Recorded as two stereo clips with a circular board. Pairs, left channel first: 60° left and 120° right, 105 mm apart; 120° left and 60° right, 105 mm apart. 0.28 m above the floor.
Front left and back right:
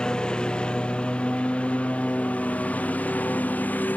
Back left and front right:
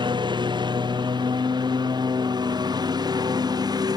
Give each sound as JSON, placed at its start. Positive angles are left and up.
{"t": 0.0, "sound": "a lawn mower", "azimuth_deg": -20}